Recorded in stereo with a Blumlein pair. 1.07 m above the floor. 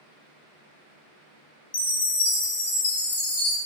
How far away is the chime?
About 0.8 m.